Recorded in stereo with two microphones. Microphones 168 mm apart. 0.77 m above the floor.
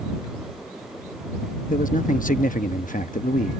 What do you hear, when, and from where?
1.7 s a man speaking: 55° left (ahead or behind)